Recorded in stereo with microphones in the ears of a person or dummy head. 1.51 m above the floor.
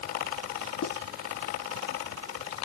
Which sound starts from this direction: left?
Writing, at 0.8 s.